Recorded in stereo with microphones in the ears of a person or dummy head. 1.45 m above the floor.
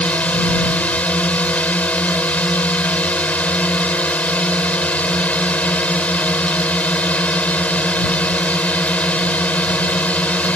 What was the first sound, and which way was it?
A drone, 5° left (ahead or behind).